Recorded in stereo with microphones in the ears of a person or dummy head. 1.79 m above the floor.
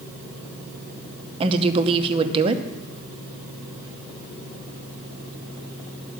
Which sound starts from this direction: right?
A woman speaking, at 1.4 s.